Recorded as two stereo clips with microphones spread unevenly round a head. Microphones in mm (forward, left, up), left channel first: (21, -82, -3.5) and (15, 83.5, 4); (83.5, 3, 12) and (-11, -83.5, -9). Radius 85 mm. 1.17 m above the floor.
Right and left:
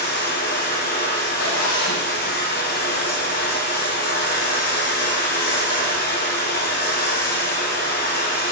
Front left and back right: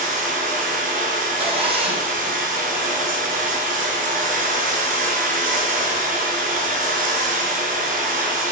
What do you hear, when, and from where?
0.0 s running water: 125° right, 7 m
1.4 s a zipper: 95° right, 6 m